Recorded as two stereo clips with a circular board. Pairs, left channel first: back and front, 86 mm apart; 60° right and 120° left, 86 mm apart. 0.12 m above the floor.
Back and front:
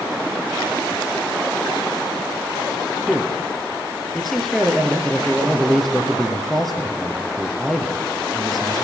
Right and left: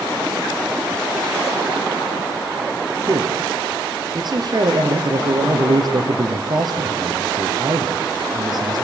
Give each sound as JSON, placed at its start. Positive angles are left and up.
{"t": 3.1, "sound": "a man speaking", "azimuth_deg": 95, "distance_m": 3.0}